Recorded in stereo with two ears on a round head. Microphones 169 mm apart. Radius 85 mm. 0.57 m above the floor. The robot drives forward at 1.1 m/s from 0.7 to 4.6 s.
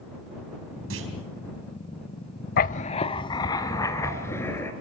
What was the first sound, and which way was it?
A clunk, 80° right.